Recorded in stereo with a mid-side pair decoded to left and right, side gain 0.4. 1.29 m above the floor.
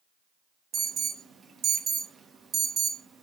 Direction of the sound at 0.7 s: 65° right.